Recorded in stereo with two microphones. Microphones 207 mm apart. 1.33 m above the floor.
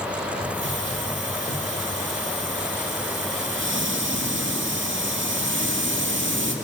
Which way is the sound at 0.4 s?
75° right (ahead or behind).